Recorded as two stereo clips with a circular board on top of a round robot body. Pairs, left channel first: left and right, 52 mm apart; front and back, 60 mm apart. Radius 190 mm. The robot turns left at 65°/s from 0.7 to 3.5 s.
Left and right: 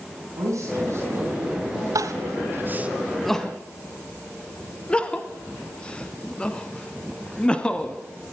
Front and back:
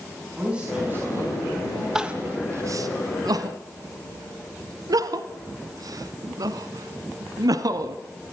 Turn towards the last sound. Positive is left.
turn(degrees=160)